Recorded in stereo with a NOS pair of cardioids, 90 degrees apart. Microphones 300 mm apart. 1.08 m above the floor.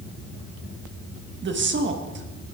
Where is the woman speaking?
40° right, 1.4 m.